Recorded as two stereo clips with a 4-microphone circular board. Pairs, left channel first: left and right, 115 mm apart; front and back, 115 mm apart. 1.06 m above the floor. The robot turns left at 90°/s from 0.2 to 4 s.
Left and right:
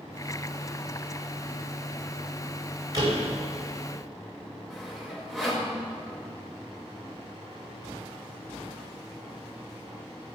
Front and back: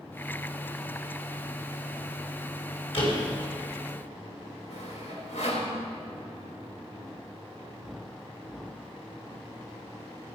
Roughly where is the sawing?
Ahead.